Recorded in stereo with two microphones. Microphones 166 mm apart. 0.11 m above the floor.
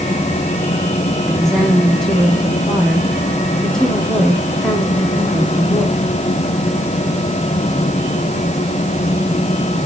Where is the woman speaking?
Centre (ahead or behind), 6 m.